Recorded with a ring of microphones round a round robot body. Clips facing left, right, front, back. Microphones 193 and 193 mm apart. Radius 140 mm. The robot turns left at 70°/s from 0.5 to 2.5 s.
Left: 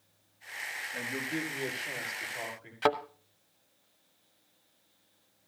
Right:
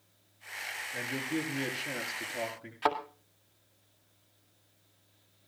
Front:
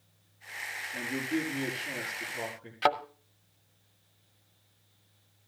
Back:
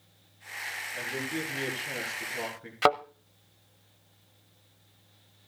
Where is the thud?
145° left, 0.8 m.